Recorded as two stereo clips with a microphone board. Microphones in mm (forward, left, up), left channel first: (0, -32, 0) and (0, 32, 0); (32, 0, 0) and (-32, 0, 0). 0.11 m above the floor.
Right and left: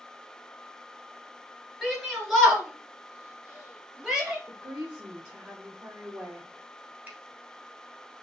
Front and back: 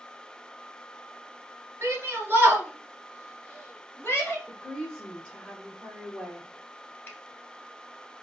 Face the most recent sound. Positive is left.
turn(degrees=35)